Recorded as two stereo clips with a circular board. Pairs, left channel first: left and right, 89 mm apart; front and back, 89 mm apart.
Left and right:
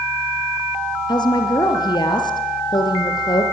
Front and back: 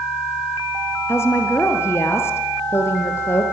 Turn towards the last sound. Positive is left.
turn(degrees=60)